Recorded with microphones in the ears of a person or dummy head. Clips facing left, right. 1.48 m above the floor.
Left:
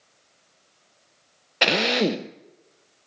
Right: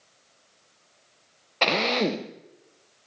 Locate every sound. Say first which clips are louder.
1.6 s a drill: left 2 dB; 20° left (ahead or behind), 0.7 m